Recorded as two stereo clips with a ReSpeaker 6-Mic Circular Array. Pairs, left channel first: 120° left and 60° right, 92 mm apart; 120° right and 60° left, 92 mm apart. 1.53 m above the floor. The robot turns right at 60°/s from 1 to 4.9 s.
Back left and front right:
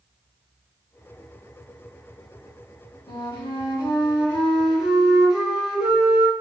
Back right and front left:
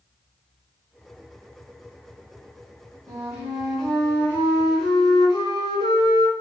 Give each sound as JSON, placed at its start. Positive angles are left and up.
{"t": 3.1, "sound": "a flute", "azimuth_deg": 110, "distance_m": 2.0}